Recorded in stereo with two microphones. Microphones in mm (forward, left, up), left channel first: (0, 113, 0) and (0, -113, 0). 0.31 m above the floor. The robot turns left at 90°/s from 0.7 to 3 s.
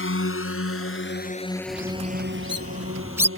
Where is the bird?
50° right; by 3.3 s 170° right.